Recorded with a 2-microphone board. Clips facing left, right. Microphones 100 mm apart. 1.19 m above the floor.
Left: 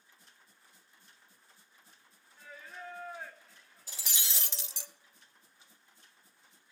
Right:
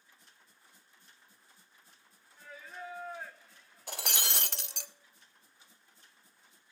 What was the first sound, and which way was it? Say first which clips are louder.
Singing: right 2 dB; centre (ahead or behind).